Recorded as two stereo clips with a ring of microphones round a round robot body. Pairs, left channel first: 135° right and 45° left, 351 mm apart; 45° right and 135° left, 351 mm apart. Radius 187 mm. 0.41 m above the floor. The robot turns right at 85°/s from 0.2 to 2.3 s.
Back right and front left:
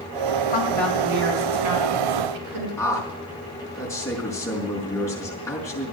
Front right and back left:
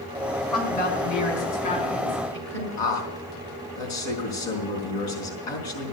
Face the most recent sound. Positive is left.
turn(degrees=-55)